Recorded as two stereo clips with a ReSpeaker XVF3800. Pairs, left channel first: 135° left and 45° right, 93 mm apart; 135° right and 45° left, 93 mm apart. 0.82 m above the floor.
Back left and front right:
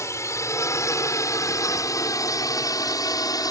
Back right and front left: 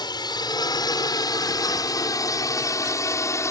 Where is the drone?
170° right; by 3.5 s 175° left.